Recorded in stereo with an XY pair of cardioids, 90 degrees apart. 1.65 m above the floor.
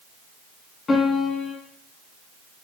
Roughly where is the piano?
Ahead left.